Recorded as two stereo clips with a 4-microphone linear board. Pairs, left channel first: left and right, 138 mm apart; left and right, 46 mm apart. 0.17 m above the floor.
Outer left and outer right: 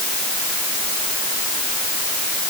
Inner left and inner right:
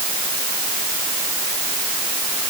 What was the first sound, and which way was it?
Only background noise.